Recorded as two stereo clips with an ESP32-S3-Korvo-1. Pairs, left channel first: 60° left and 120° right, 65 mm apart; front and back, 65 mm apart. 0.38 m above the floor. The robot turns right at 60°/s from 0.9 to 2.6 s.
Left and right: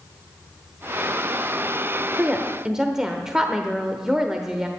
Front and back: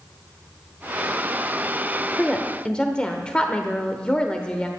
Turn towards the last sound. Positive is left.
turn(degrees=-50)